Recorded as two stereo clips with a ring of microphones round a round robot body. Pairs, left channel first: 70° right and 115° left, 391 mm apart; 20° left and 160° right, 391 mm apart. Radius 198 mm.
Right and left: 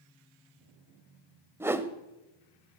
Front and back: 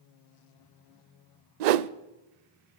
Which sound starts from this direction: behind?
A whoosh, at 1.6 s.